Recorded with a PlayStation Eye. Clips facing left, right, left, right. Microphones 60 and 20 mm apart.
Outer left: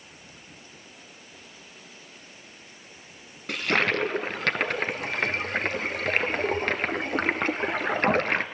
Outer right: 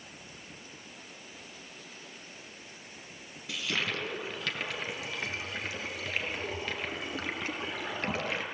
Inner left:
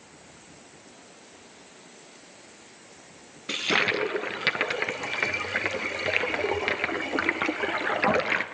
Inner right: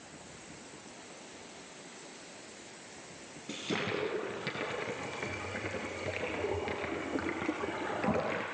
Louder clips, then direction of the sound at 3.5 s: Outer left 9 dB, inner left 11 dB; 55° left (ahead or behind).